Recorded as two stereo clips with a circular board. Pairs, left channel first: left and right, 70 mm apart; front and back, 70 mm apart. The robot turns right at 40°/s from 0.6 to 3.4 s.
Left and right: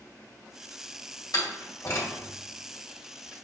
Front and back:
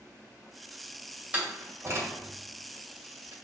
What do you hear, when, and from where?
1.3 s a door slam: 110° left, 2.0 m; by 3.3 s 170° right, 2.0 m